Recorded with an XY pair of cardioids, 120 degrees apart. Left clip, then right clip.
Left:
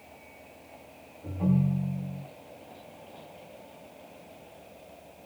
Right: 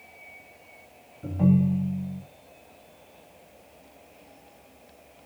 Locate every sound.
1.2 s a ringtone: 55° right, 1.0 m